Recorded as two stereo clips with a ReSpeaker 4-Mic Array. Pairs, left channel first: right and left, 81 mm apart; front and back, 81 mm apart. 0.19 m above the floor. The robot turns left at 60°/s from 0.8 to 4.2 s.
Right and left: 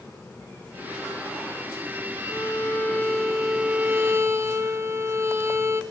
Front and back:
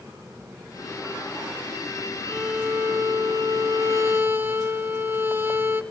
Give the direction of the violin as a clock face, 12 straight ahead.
4 o'clock.